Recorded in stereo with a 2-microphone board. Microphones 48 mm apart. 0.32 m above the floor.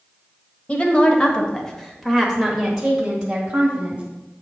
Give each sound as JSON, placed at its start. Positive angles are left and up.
{"t": 0.7, "sound": "a woman speaking", "side_deg": 25, "distance_m": 1.3}